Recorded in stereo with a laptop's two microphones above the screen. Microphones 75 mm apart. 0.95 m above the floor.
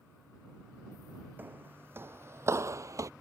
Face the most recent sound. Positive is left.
turn(degrees=-45)  # may be behind; listen again after turning